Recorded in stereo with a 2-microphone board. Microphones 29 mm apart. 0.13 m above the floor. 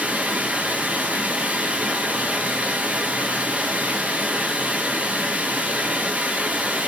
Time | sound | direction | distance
0.0 | running water | 70° right (ahead or behind) | 0.8 m